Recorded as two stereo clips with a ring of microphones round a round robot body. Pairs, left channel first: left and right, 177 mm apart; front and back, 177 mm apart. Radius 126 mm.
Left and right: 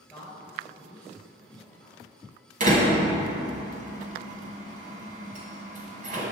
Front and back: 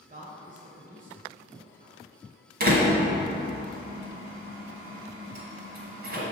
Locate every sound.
0.1 s a man speaking: 165° left, 1.4 m
2.6 s a door slam: 140° right, 1.9 m